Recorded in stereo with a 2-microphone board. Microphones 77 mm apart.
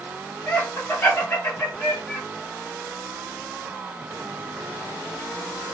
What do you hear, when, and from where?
0.5 s laughter: 25° left (ahead or behind), 1.1 m